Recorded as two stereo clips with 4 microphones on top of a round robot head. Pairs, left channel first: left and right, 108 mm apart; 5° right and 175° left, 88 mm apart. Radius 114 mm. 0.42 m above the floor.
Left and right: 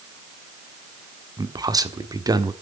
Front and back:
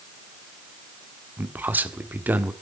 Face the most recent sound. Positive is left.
turn(degrees=-120)